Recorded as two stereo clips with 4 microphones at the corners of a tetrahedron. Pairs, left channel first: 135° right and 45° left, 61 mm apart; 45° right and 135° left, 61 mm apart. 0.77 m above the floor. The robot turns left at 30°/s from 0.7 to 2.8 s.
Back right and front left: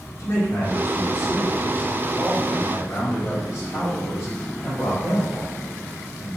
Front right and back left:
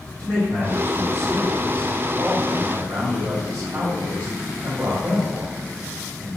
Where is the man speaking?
110° right, 1.9 m; by 6.4 s 170° right, 1.9 m.